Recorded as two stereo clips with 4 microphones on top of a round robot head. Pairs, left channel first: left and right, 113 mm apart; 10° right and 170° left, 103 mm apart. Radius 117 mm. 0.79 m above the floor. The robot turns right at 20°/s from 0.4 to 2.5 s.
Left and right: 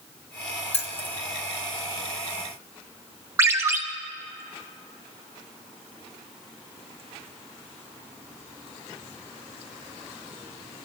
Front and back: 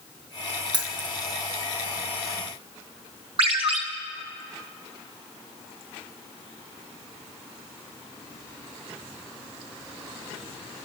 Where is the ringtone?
155° right, 1.2 m.